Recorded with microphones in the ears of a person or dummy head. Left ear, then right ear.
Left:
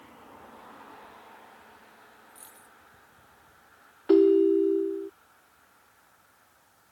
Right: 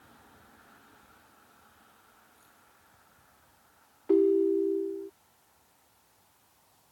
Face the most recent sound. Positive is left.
turn(degrees=45)  # may be behind; listen again after turning